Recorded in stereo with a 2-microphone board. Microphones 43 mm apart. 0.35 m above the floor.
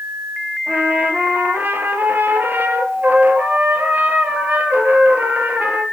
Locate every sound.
0.7 s a trumpet: 45° right (ahead or behind), 2.5 m